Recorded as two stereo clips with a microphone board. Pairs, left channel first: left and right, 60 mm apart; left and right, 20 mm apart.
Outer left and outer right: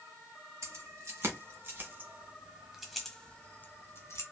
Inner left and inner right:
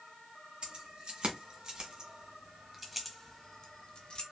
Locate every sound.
0.6 s keys jangling: 50° right (ahead or behind), 2.5 m; by 4.2 s 50° left (ahead or behind), 1.3 m